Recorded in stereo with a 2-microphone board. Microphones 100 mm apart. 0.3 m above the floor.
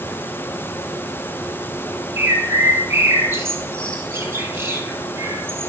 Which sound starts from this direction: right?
A bird, at 2.2 s.